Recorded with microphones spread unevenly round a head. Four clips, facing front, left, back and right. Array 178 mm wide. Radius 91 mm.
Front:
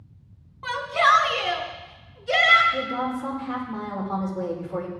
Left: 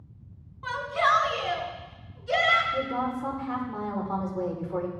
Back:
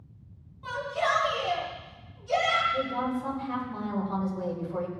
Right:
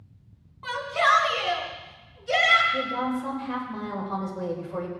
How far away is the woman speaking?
About 5 m.